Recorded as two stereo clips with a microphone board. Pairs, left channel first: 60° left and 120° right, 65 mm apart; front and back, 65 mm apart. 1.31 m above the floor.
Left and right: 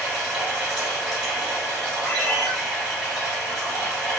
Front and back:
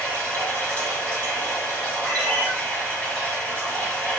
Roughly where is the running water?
Ahead right.